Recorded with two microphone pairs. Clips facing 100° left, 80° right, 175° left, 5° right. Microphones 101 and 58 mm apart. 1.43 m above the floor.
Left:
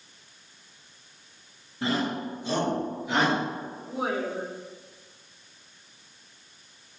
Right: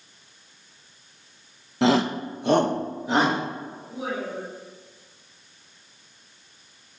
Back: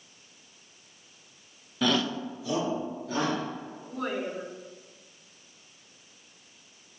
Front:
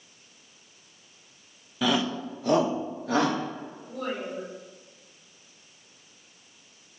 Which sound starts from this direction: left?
A woman speaking, at 3.9 s.